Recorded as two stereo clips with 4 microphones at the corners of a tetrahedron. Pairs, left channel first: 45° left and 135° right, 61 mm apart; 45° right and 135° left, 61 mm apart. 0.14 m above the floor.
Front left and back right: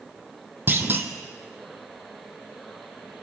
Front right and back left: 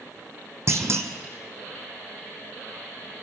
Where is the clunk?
175° left, 1.5 m.